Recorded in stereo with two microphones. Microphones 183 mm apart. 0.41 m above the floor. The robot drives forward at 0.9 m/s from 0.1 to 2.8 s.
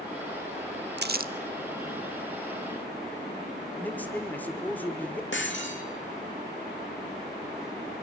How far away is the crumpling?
About 0.6 m.